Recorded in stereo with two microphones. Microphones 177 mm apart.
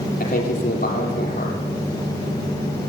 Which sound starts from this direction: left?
A man speaking, at 0.2 s.